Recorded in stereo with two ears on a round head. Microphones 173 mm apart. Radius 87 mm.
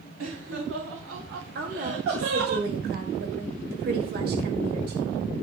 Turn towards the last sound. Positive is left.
turn(degrees=-55)  # may be behind; listen again after turning